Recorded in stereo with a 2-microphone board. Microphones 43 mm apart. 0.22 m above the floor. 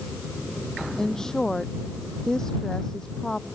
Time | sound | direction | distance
1.0 | a woman speaking | 15° left (ahead or behind) | ?